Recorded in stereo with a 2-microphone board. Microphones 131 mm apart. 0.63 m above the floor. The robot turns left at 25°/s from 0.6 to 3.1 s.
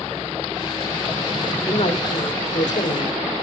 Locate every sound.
1.7 s a man speaking: 130° left, 1.7 m; by 3.2 s 95° left, 1.7 m